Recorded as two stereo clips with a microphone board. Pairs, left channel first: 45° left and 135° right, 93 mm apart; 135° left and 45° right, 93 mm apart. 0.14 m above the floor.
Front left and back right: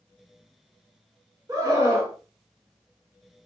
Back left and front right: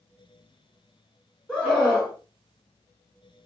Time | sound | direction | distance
1.5 | a scream | 150° right | 1.4 m